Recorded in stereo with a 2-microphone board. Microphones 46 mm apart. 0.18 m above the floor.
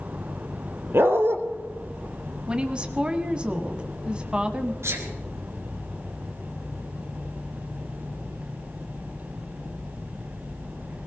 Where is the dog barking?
55° right (ahead or behind), 1.4 m.